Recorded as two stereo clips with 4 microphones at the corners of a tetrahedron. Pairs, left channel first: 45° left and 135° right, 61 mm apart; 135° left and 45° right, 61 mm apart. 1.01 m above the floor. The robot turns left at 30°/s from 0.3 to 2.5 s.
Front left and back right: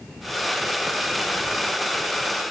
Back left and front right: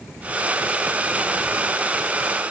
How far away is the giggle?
No giggle in this recording.